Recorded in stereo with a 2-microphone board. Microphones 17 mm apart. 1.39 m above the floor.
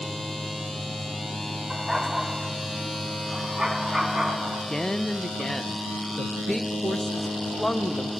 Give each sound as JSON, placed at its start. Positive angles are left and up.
{"t": 1.7, "sound": "a dog barking", "side_deg": -15, "distance_m": 2.5}
{"t": 4.4, "sound": "a woman speaking", "side_deg": 30, "distance_m": 1.0}